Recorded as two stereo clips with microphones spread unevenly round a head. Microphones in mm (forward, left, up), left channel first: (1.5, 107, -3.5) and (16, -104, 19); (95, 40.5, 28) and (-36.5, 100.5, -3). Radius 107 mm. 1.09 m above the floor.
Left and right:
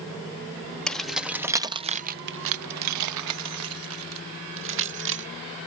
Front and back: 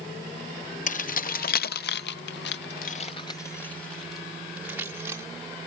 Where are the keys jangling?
5° left; by 5.3 s 125° right.